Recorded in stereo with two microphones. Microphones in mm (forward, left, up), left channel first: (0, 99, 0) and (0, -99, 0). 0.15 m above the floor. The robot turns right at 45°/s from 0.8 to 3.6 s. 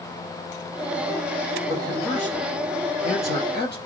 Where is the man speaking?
20° right, 4 m; by 3.8 s 70° left, 4 m.